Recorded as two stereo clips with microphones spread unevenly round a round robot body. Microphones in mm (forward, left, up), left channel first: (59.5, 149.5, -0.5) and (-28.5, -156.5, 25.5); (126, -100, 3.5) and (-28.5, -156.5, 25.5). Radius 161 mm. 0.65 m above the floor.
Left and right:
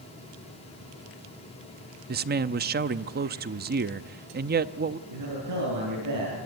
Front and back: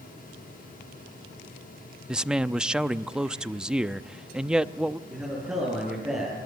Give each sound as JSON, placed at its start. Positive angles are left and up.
{"t": 2.1, "sound": "a man speaking", "azimuth_deg": -65, "distance_m": 0.7}
{"t": 5.1, "sound": "a man speaking", "azimuth_deg": -80, "distance_m": 10.0}